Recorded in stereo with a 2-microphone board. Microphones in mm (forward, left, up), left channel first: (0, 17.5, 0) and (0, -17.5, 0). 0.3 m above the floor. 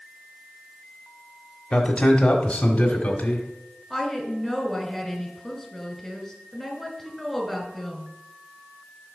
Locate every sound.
1.7 s a man speaking: 25° left (ahead or behind), 1.0 m
3.9 s a woman speaking: 5° left (ahead or behind), 1.8 m